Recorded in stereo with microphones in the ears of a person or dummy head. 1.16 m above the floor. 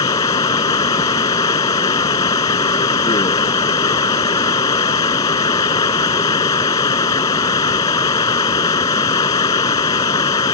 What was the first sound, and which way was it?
Running water, 15° left (ahead or behind).